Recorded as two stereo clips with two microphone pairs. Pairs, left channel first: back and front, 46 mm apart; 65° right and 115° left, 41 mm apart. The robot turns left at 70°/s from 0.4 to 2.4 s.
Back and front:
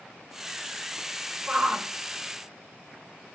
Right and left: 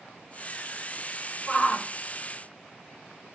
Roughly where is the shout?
Ahead.